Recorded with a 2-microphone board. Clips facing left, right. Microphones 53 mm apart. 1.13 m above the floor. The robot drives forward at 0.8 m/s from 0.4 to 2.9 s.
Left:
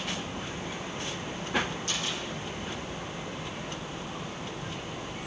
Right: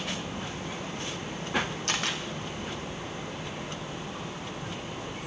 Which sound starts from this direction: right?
A camera shutter, at 1.9 s.